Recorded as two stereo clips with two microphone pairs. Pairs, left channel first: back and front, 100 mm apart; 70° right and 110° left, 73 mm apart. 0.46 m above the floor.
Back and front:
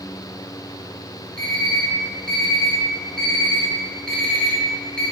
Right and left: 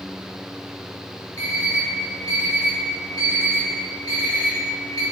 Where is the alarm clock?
100° right, 1.4 m.